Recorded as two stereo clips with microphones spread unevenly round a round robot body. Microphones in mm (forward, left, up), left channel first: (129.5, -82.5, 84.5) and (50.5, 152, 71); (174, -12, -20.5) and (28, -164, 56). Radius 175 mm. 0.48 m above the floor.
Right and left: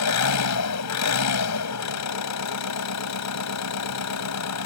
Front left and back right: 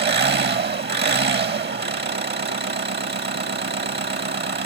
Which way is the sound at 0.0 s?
90° right.